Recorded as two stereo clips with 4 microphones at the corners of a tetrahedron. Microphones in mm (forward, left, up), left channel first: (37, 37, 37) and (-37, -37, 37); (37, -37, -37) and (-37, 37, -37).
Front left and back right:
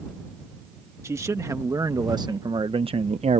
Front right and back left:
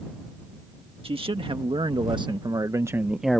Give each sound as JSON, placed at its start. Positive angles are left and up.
{"t": 1.0, "sound": "a man speaking", "azimuth_deg": 165}